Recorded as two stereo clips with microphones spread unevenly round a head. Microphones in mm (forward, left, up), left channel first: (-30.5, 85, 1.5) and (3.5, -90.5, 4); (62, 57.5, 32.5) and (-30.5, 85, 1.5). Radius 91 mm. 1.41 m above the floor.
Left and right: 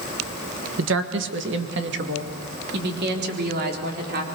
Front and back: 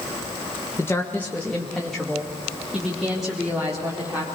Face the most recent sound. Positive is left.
turn(degrees=-115)